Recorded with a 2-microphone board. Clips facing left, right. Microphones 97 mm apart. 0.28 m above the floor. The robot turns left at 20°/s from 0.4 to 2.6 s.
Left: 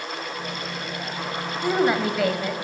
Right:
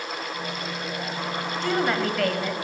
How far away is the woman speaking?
About 1.2 m.